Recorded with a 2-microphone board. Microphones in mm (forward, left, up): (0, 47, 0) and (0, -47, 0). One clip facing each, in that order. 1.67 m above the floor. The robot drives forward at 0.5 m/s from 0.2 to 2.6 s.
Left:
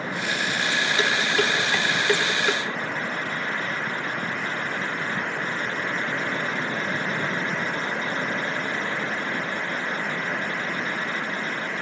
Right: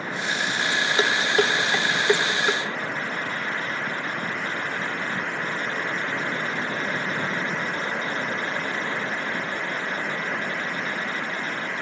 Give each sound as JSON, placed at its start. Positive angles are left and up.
{"t": 1.0, "sound": "dishes clattering", "side_deg": -35, "distance_m": 1.1}